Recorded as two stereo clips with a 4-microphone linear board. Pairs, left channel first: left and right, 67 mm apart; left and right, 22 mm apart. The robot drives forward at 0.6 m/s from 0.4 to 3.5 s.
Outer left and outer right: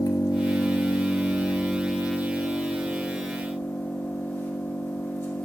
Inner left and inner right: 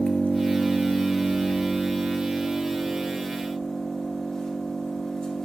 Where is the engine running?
70° left (ahead or behind), 1.0 m; by 5.5 s 25° left (ahead or behind), 2 m.